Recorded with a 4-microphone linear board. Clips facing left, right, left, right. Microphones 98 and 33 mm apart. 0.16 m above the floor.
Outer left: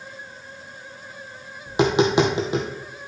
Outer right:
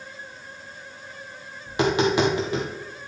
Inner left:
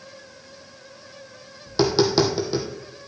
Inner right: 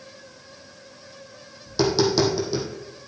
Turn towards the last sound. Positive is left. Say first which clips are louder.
# outer left 2 dB, inner left 1 dB
turn(degrees=20)  # may be behind; listen again after turning